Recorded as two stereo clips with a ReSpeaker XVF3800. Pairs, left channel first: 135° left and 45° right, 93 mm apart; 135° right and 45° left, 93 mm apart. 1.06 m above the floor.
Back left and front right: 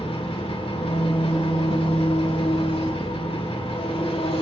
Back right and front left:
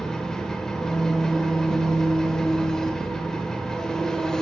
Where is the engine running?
140° left, 2 m.